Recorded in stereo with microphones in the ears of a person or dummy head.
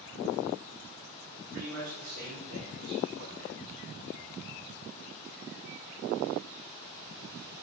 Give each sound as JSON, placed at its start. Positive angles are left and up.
{"t": 1.5, "sound": "a man speaking", "side_deg": -75, "distance_m": 3.5}